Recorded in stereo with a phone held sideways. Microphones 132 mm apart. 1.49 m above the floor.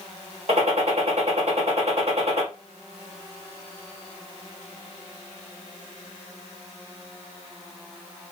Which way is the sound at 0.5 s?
60° right (ahead or behind).